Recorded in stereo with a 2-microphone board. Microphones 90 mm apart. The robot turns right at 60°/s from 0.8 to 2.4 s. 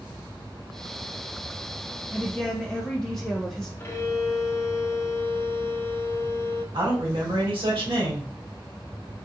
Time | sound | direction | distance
2.1 | a woman speaking | 10° right (ahead or behind) | 0.7 m
3.8 | a violin | 30° left (ahead or behind) | 0.7 m
6.7 | a man speaking | 65° right (ahead or behind) | 2 m